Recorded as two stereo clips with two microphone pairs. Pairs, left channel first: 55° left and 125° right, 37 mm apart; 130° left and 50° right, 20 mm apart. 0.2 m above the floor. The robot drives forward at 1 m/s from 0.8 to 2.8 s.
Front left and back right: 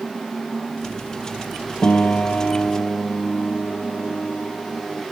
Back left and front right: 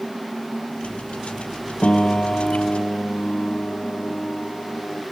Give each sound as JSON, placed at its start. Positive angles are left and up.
{"t": 1.8, "sound": "a piano", "azimuth_deg": 95}